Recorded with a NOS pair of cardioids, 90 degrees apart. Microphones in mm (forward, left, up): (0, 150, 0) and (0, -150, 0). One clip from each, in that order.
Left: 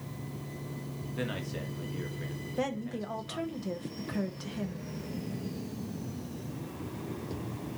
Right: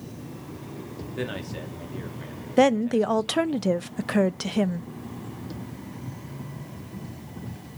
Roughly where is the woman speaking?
Ahead right.